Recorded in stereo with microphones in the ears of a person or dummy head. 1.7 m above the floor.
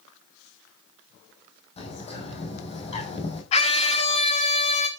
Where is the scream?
35° left (ahead or behind), 1.3 m.